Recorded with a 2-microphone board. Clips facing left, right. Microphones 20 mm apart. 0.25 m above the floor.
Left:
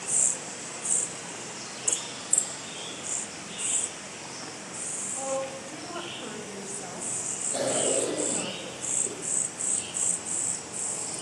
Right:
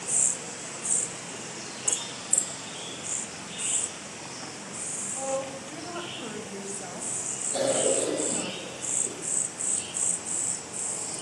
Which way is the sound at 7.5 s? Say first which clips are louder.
Right 2 dB; 20° right (ahead or behind).